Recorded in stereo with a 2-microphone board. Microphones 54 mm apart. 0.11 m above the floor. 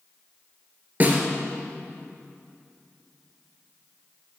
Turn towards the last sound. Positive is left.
turn(degrees=-30)  # may be behind; listen again after turning